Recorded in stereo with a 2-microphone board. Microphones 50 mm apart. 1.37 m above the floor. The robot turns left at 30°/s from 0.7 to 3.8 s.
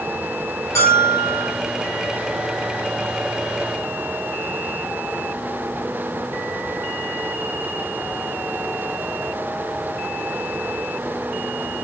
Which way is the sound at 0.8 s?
75° left (ahead or behind).